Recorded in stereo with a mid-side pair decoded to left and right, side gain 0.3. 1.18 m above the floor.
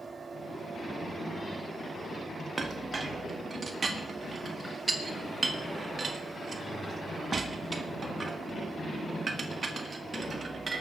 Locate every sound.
0.0 s a machine running: 50° right, 2 m
2.6 s a clink: 45° right, 1.7 m